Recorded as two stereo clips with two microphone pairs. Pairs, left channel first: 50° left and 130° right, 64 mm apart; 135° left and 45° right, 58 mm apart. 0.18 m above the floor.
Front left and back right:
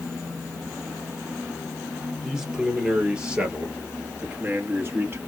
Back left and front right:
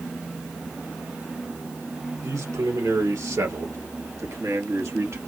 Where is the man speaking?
45° right, 3.5 m; by 5.2 s 75° right, 3 m.